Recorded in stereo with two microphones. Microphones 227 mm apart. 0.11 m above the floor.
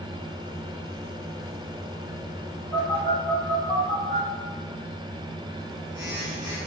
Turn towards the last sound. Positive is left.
turn(degrees=-50)  # may be behind; listen again after turning